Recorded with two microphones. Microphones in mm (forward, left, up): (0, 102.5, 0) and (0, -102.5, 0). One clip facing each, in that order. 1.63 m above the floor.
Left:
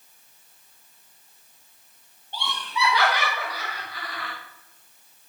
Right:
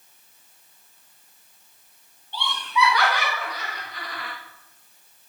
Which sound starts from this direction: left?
Laughter, at 2.3 s.